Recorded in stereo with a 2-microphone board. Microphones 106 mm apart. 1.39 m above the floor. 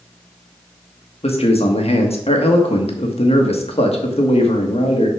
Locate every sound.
1.2 s a man speaking: 70° left (ahead or behind), 1.6 m